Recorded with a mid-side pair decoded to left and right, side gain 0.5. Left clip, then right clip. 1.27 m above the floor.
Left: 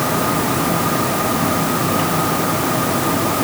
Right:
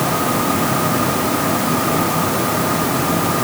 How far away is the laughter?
I don't hear laughter.